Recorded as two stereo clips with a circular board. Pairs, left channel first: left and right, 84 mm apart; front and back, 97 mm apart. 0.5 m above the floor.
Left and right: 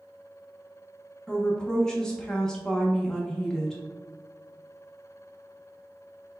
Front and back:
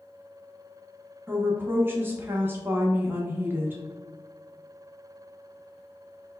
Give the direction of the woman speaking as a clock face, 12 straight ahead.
7 o'clock.